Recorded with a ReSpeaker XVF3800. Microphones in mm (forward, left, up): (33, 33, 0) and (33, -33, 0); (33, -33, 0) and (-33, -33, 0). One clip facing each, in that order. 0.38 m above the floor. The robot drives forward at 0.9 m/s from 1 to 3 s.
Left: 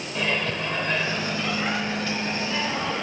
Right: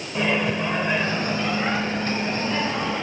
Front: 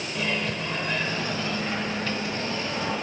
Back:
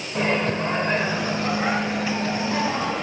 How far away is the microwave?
About 1.1 m.